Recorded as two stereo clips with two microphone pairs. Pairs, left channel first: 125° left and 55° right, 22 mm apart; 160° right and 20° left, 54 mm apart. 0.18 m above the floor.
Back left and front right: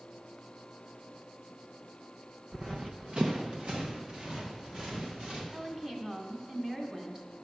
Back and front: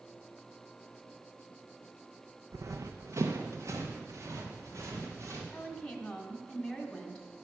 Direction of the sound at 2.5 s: 10° left.